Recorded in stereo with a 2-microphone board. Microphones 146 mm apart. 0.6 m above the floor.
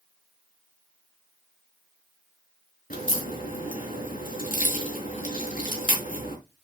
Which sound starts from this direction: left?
A crack, at 2.9 s.